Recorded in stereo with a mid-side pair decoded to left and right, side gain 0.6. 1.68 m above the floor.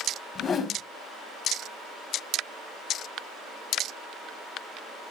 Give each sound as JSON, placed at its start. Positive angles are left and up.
{"t": 0.3, "sound": "a whoosh", "azimuth_deg": 40, "distance_m": 1.8}